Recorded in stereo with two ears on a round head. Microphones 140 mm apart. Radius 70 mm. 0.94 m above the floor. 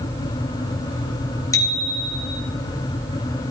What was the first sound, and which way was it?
A bicycle bell, 20° left (ahead or behind).